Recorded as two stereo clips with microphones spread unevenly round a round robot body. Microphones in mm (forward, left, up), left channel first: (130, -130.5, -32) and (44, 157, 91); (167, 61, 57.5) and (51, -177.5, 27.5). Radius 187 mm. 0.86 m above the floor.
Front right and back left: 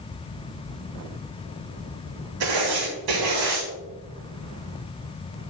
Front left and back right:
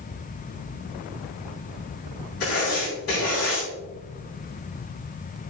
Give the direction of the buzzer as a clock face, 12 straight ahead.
I don't hear a buzzer.